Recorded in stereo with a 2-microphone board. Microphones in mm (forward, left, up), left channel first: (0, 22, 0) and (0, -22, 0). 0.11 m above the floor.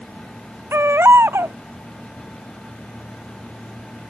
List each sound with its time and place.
0.7 s a baby crying: 70° right (ahead or behind)